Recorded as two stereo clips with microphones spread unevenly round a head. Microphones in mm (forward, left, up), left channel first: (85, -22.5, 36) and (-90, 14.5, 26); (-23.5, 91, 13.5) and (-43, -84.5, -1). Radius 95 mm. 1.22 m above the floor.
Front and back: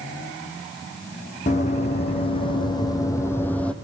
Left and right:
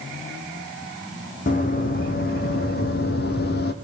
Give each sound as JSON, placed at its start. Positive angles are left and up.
{"t": 1.5, "sound": "running footsteps", "azimuth_deg": 40, "distance_m": 3.0}